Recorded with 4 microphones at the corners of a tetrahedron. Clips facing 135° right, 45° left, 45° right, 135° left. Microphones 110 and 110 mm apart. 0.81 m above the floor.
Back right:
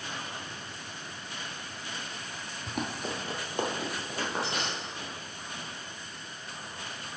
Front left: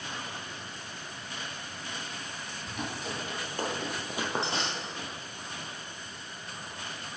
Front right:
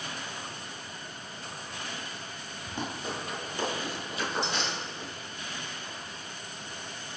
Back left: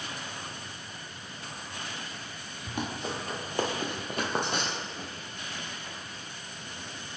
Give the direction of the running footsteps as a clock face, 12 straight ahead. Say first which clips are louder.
Back right 3 dB, back left 2 dB; 5 o'clock.